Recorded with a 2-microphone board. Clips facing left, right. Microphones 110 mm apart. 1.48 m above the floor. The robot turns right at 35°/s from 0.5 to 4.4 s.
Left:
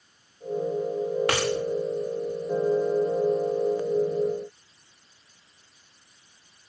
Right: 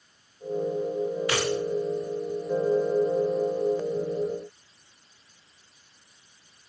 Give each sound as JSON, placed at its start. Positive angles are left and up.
{"t": 1.3, "sound": "a dropped coin", "side_deg": 65, "distance_m": 8.5}